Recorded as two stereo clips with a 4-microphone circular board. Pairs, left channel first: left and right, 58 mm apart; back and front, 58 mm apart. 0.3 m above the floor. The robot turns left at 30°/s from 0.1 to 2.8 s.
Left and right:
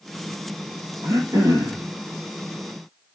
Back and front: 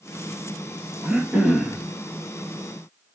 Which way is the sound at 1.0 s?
65° right.